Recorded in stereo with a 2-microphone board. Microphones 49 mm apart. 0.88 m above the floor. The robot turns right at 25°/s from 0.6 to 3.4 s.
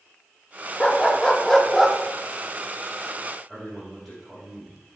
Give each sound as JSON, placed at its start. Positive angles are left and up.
{"t": 0.8, "sound": "a dog barking", "side_deg": 25, "distance_m": 0.6}
{"t": 3.5, "sound": "a man speaking", "side_deg": 5, "distance_m": 3.5}